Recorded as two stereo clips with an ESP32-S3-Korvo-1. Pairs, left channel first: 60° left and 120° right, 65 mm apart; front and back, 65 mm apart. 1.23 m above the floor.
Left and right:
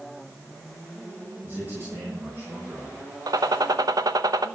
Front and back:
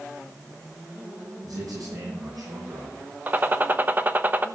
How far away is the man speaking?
About 8 m.